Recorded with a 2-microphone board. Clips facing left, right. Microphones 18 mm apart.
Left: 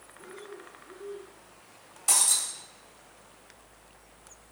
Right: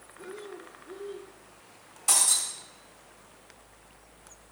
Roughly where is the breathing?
Right.